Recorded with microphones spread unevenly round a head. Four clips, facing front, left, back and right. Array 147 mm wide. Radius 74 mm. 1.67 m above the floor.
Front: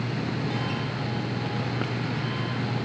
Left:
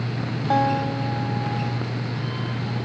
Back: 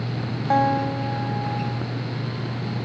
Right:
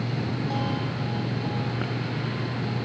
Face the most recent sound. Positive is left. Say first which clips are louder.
# left 8 dB, back 10 dB
turn(degrees=145)